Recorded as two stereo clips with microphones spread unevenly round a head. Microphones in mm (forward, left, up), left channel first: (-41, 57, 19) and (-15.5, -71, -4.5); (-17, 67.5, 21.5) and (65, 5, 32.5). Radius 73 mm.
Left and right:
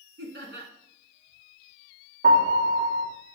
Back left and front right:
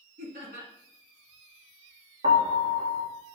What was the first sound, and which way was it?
Laughter, 60° right.